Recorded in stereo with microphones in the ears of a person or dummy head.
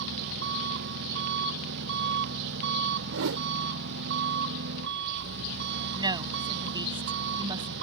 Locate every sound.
0.0 s an engine running: 65° right (ahead or behind)
3.1 s a whoosh: 60° right (ahead or behind)
6.0 s a woman speaking: 15° right (ahead or behind)